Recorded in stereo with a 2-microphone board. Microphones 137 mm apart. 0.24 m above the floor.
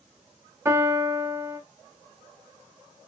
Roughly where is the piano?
Centre.